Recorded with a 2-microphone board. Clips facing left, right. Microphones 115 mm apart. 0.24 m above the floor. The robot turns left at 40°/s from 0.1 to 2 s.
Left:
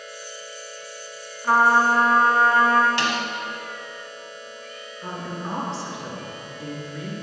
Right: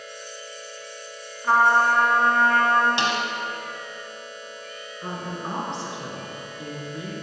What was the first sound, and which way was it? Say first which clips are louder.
A trumpet: left 1 dB; centre (ahead or behind).